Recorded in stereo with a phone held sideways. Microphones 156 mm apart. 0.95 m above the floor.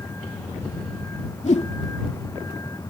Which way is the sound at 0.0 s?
15° left (ahead or behind).